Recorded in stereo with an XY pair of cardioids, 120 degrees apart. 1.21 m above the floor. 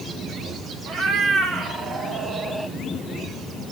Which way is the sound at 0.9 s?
65° right.